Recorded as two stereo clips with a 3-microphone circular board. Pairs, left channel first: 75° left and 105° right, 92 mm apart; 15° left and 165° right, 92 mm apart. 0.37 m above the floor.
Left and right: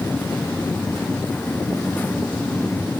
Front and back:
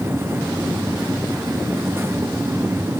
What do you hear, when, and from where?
Only background noise.